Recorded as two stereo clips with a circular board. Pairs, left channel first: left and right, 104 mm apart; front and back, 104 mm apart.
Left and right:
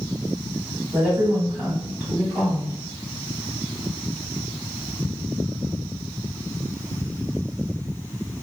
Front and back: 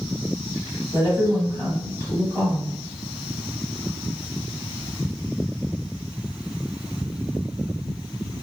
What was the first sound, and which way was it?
A woman speaking, 35° right.